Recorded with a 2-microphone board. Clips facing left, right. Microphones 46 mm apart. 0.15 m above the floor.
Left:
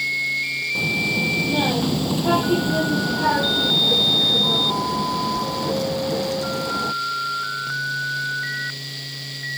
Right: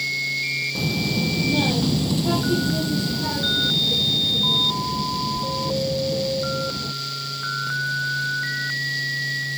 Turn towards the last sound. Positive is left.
turn(degrees=80)